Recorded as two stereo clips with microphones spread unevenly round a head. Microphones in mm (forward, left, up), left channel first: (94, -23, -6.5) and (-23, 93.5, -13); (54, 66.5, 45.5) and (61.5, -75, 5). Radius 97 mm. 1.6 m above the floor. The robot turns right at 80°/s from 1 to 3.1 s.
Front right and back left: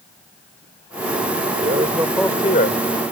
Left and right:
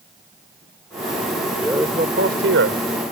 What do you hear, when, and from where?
1.6 s a man speaking: straight behind; by 2.8 s 80° right